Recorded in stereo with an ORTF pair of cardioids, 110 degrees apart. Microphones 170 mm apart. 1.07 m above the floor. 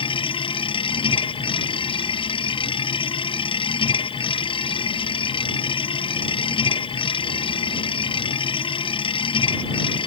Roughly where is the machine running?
Ahead left.